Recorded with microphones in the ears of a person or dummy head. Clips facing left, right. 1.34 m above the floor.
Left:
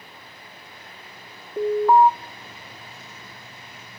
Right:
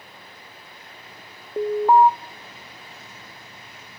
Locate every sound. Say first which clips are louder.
1.6 s an alarm: even; 20° right (ahead or behind), 1.3 m